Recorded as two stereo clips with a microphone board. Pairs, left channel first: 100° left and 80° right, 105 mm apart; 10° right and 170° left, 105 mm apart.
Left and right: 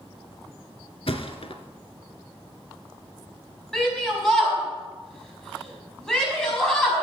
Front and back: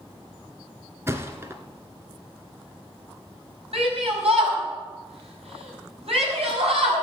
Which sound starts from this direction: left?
A thud, at 1.1 s.